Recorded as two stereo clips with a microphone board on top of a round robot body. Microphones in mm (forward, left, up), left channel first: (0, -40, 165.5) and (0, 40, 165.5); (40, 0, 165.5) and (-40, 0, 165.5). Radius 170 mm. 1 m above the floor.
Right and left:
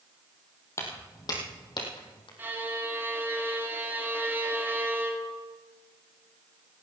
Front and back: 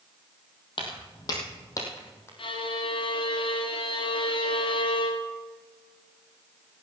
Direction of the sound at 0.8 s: 30° right.